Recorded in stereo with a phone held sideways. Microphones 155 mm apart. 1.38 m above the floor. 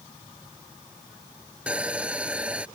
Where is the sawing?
10° right (ahead or behind).